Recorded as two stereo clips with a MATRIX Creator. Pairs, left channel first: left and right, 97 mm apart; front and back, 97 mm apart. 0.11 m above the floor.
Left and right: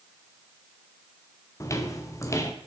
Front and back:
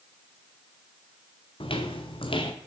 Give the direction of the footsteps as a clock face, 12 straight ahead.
11 o'clock.